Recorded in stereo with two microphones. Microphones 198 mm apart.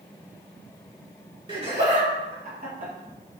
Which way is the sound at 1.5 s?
25° right (ahead or behind).